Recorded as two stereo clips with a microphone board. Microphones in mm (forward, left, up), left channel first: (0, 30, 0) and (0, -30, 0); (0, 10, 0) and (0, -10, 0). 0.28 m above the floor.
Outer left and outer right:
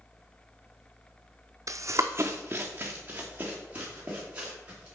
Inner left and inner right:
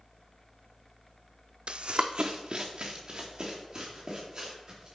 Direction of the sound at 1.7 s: 65° right (ahead or behind).